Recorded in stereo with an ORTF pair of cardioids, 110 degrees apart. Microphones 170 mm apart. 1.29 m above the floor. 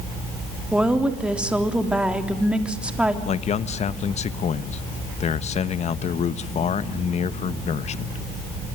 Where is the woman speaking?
5° right, 3.5 m.